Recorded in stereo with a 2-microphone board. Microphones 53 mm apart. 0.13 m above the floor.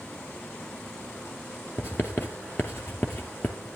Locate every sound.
1.8 s writing: 45° left (ahead or behind), 2 m